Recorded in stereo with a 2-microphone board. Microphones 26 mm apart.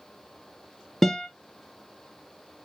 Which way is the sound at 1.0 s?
15° left (ahead or behind).